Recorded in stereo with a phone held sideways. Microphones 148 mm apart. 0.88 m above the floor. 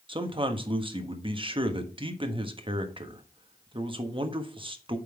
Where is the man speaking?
35° right (ahead or behind), 1.2 m.